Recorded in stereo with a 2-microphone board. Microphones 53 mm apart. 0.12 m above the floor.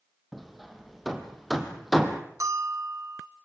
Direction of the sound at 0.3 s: Centre (ahead or behind).